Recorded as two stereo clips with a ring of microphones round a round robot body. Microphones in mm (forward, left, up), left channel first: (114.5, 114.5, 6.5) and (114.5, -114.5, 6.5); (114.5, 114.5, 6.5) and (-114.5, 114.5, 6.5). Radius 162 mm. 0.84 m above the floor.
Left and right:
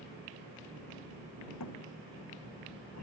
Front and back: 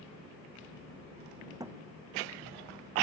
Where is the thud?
105° left.